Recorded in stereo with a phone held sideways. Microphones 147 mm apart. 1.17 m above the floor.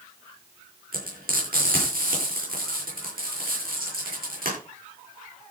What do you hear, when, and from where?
0.9 s frying: 85° right, 9.5 m